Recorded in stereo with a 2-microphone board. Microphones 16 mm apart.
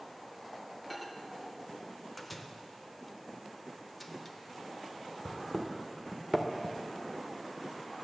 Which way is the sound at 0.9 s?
5° right (ahead or behind).